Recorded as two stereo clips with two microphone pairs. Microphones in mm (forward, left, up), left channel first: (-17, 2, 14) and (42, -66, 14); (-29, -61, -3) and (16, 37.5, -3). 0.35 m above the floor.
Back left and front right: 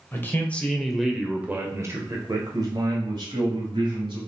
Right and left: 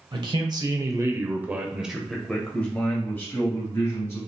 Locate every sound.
0.1 s a man speaking: 75° left, 1.2 m; by 4.2 s 55° right, 2 m